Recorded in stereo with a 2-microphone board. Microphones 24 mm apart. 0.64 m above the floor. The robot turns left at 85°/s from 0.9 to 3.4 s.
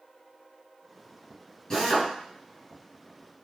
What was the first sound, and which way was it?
A drill, 150° left.